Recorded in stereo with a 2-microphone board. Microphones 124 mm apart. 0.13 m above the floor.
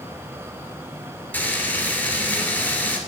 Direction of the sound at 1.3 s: 15° left (ahead or behind).